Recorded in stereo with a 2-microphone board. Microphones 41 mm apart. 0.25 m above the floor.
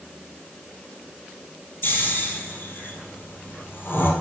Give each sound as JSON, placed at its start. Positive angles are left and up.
{"t": 1.8, "sound": "snoring", "side_deg": 50, "distance_m": 1.3}